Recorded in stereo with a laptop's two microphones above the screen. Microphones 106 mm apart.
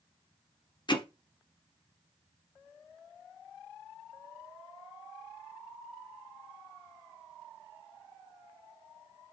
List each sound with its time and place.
0.9 s hammering: 45° left (ahead or behind), 0.8 m